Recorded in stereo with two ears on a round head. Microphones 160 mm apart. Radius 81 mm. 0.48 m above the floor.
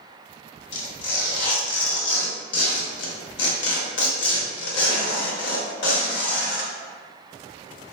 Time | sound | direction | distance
0.7 | tearing paper | 80° left | 0.6 m